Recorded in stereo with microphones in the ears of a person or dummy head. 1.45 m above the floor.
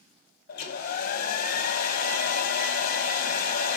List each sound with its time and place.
0.5 s a hair dryer: 60° left (ahead or behind), 0.9 m